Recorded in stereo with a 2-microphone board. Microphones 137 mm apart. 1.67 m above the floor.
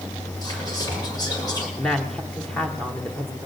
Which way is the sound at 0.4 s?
30° left (ahead or behind).